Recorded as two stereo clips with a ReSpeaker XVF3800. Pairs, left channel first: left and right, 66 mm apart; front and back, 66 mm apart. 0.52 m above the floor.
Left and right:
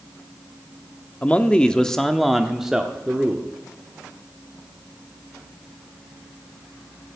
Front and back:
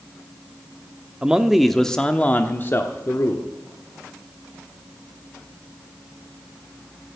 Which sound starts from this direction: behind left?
A man speaking, at 1.2 s.